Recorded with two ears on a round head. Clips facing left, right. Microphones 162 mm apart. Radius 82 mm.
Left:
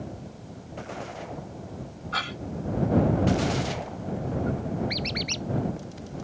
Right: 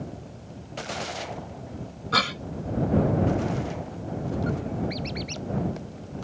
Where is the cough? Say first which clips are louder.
Right 7 dB; 70° right (ahead or behind).